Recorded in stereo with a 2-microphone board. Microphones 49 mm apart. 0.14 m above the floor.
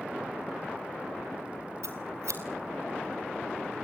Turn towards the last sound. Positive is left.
turn(degrees=-80)